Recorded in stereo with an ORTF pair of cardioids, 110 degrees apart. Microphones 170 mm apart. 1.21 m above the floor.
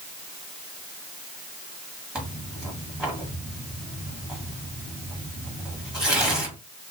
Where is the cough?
No cough in this recording.